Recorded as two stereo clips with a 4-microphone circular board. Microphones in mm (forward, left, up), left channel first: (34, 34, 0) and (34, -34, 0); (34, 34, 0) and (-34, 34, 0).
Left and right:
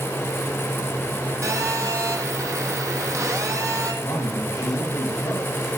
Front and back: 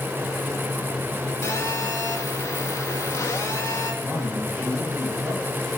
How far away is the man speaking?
About 7 m.